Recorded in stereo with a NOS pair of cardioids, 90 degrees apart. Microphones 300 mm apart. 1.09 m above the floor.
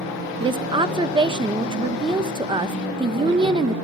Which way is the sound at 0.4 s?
15° right.